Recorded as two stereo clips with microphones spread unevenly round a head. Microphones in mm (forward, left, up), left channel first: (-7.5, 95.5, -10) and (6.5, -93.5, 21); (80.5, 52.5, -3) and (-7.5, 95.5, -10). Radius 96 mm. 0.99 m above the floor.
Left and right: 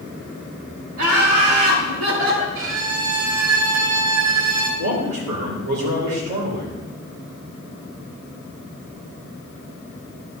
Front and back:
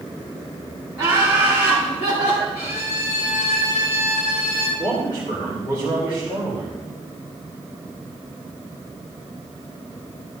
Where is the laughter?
105° right, 3 m; by 2.5 s 60° right, 2.5 m.